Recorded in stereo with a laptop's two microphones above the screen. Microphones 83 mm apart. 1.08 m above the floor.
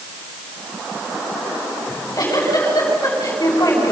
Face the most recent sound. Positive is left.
turn(degrees=50)  # may be behind; listen again after turning